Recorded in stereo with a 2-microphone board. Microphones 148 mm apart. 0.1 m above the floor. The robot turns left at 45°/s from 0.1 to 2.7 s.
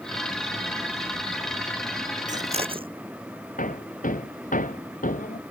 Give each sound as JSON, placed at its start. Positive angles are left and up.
{"t": 2.3, "sound": "scissors", "side_deg": -55}
{"t": 3.6, "sound": "hammering", "side_deg": 65}